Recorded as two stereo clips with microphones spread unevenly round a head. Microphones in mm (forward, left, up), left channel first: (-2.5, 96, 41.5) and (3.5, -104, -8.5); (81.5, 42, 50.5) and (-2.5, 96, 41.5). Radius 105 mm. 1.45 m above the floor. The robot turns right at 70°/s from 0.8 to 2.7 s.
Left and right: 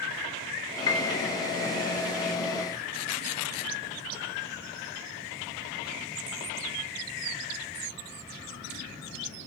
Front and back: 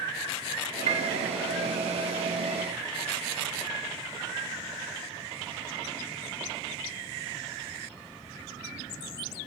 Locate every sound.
0.9 s a piano: 150° left, 2 m; by 1.2 s 170° left, 2 m